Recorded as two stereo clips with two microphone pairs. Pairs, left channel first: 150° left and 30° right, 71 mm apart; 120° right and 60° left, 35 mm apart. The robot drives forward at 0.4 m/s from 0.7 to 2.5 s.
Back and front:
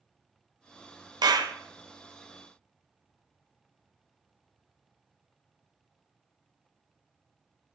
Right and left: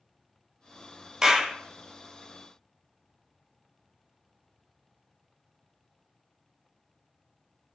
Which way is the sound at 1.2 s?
15° right.